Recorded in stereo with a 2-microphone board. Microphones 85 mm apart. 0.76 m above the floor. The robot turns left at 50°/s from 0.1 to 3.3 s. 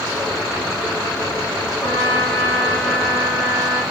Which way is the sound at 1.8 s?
60° left.